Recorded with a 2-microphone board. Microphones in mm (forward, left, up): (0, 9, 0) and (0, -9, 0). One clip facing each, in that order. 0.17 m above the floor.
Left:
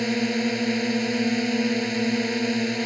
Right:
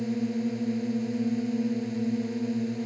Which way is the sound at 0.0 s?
55° left (ahead or behind).